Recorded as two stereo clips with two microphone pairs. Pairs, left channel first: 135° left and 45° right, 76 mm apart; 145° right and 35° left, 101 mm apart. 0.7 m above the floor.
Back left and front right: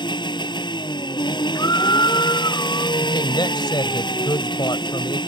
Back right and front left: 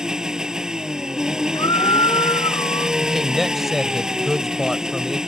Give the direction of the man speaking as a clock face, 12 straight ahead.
8 o'clock.